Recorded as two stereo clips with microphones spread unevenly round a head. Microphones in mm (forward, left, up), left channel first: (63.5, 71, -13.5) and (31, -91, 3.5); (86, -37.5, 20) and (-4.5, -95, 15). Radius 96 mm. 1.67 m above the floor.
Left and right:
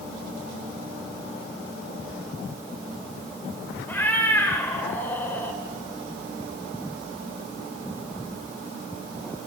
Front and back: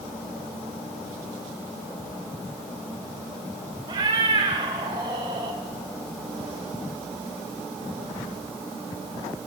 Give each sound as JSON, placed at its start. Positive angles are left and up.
{"t": 3.9, "sound": "a cat meowing", "azimuth_deg": 160, "distance_m": 1.8}